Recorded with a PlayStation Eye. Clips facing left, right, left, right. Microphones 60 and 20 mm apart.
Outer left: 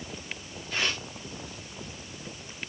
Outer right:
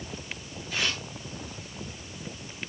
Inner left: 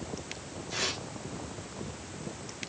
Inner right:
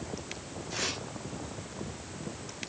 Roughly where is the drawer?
No drawer in this recording.